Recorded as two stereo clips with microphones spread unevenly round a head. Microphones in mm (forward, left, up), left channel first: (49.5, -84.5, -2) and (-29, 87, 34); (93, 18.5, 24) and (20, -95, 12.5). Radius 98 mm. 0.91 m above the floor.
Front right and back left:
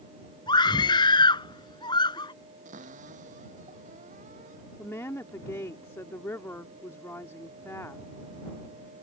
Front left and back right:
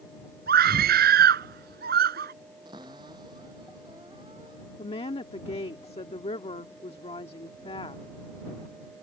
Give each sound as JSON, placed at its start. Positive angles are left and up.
{"t": 0.5, "sound": "a scream", "azimuth_deg": -135}
{"t": 2.6, "sound": "a cupboard door", "azimuth_deg": 165}
{"t": 4.8, "sound": "a woman speaking", "azimuth_deg": 15}